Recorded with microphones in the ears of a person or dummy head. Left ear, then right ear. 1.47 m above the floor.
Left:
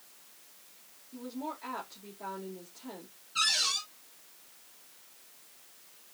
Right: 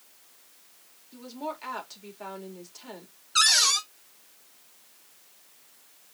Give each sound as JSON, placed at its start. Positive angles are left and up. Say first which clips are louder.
{"t": 1.1, "sound": "a woman speaking", "louder": "right 4 dB", "side_deg": -65, "distance_m": 2.5}
{"t": 3.4, "sound": "a cupboard door", "louder": "right 7 dB", "side_deg": -60, "distance_m": 0.8}